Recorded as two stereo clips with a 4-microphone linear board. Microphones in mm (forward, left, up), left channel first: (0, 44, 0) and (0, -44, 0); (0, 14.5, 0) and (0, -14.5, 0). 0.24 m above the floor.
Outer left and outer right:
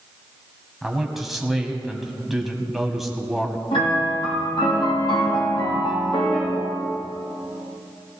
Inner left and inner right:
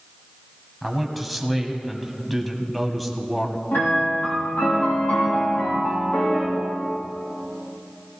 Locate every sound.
0.8 s a man speaking: centre (ahead or behind), 1.6 m
3.7 s a piano: 80° left, 5.5 m